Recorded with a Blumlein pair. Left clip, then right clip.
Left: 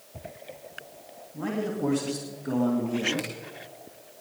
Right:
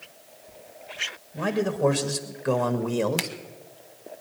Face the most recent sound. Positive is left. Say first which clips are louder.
# right 4 dB
turn(degrees=-40)